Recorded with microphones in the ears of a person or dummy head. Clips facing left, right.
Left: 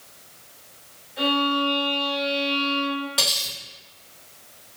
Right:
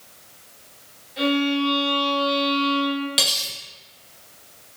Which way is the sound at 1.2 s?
55° right (ahead or behind).